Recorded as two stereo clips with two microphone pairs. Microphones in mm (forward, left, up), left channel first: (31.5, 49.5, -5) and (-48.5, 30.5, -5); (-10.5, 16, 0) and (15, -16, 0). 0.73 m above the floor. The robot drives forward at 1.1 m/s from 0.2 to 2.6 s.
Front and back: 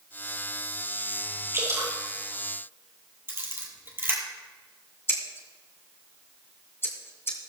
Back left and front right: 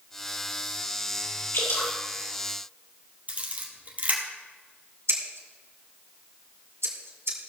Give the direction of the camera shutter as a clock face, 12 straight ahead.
3 o'clock.